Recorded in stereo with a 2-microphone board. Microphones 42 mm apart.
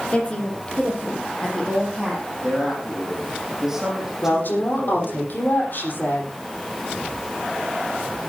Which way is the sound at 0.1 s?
25° left (ahead or behind).